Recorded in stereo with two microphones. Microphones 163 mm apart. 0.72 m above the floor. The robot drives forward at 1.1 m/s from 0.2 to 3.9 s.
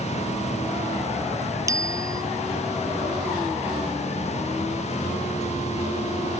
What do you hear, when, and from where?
1.7 s a bicycle bell: 20° right (ahead or behind)